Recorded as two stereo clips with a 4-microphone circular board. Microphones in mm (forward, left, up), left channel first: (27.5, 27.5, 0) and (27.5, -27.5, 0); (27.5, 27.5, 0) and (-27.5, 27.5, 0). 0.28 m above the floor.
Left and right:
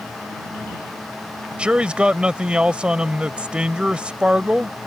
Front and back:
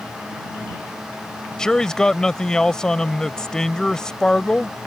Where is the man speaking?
55° right.